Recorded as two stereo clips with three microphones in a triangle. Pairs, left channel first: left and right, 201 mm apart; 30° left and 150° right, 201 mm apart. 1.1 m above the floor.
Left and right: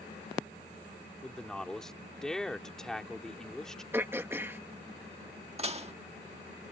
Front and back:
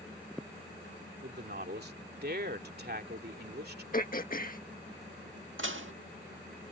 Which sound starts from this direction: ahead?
Throat clearing, at 3.9 s.